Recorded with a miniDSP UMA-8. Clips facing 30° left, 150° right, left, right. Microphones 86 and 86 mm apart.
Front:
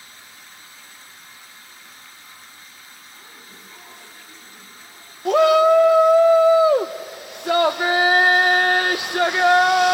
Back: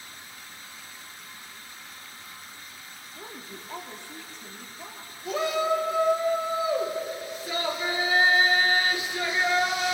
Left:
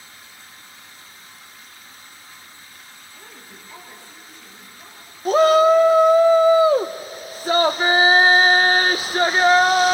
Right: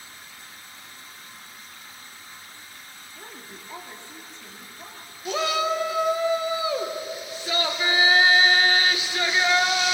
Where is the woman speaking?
155° right, 3.5 m.